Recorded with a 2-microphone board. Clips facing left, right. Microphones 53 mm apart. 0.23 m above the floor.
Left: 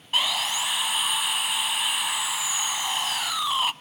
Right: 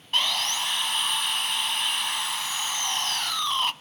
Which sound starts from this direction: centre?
Sawing, at 0.1 s.